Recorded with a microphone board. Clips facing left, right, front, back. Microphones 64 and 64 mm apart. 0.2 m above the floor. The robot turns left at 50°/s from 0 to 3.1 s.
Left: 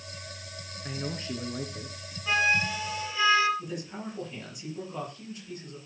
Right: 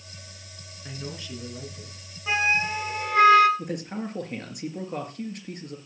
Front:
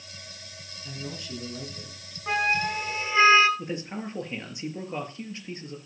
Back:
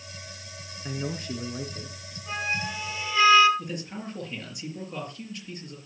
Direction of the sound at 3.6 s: 60° right.